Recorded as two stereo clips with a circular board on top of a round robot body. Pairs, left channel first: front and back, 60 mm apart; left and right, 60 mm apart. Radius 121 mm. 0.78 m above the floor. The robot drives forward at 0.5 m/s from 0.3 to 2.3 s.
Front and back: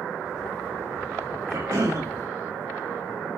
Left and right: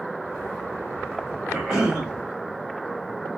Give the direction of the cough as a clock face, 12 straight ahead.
6 o'clock.